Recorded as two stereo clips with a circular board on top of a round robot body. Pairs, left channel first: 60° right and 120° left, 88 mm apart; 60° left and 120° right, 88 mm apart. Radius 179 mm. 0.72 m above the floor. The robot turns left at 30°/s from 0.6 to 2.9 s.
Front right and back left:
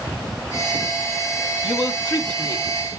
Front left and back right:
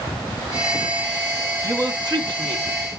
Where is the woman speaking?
80° right, 2.5 m; by 2.6 s 110° right, 2.5 m.